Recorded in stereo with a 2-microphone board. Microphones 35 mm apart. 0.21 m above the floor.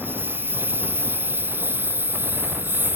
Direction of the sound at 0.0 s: 85° right.